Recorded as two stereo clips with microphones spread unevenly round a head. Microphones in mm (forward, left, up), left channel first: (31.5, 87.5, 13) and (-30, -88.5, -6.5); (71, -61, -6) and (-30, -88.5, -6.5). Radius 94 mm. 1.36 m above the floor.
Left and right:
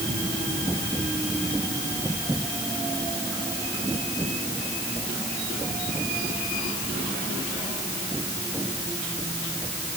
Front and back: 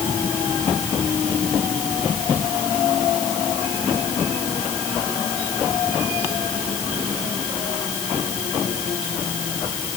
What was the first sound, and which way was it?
Only background noise.